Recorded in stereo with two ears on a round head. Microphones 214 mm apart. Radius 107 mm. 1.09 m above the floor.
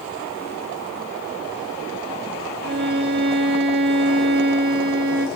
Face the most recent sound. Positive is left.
turn(degrees=-45)  # may be behind; listen again after turning